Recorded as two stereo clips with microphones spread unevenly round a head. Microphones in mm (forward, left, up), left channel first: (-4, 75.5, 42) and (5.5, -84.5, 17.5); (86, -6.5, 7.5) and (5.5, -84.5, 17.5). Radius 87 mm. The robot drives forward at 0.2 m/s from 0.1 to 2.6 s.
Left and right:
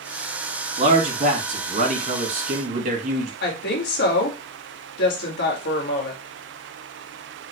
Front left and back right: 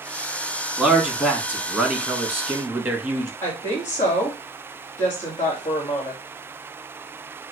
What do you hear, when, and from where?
0.8 s a man speaking: 55° right, 2.0 m; by 3.3 s 65° right, 1.8 m
3.4 s a woman speaking: 115° left, 1.7 m